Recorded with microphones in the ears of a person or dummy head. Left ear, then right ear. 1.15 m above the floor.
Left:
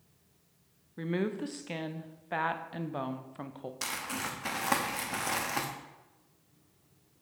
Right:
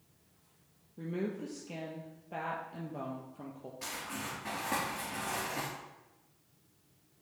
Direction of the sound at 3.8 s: 60° left (ahead or behind).